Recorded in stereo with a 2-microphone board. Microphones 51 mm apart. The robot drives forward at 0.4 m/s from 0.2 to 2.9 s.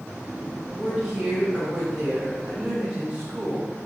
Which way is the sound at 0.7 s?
15° right (ahead or behind).